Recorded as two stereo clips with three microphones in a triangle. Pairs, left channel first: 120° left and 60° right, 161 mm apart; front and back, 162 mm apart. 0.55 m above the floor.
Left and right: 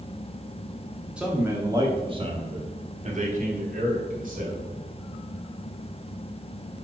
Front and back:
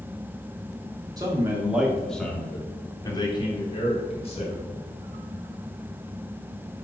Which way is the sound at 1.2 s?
140° right.